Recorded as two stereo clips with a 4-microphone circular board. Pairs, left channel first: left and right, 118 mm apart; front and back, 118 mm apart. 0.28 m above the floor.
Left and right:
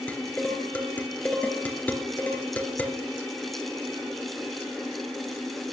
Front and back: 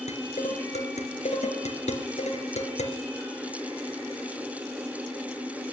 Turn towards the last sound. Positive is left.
turn(degrees=15)